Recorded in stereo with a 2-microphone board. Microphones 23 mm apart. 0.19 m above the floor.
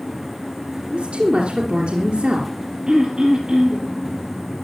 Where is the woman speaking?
50° right (ahead or behind), 3 m.